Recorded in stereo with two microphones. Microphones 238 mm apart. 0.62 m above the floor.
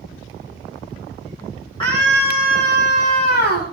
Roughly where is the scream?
Centre.